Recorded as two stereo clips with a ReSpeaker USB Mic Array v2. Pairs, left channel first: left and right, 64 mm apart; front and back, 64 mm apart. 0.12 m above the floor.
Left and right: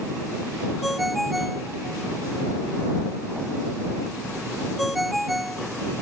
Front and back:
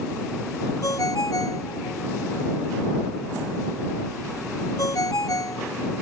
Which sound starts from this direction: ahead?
A ringtone, at 0.8 s.